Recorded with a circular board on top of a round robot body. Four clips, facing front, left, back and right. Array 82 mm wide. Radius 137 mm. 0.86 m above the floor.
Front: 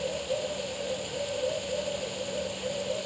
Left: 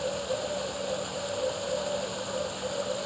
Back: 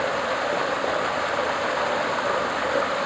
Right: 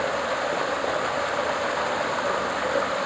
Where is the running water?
140° right.